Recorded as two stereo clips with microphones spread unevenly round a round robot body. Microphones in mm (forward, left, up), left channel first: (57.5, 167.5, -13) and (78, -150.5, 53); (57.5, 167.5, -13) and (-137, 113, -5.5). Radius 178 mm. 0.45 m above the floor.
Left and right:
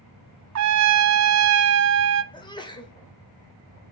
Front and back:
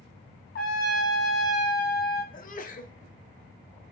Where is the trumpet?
50° right, 0.5 m.